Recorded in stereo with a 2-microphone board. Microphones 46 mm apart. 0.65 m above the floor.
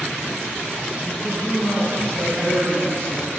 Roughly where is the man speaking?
Left.